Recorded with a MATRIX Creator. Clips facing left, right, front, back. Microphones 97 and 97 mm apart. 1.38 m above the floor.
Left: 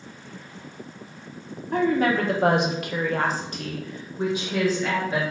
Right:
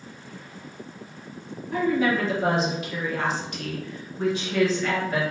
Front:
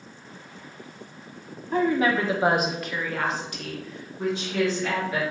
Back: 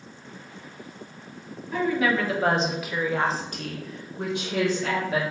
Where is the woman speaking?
50° left, 0.8 m; by 5.2 s 175° left, 1.3 m.